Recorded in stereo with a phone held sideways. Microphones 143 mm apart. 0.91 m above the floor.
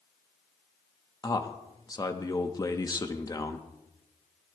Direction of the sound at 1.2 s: 25° left (ahead or behind).